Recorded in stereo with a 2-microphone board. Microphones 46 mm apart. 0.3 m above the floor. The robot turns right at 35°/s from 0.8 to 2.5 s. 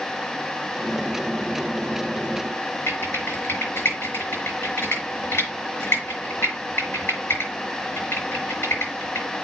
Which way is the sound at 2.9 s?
60° left (ahead or behind).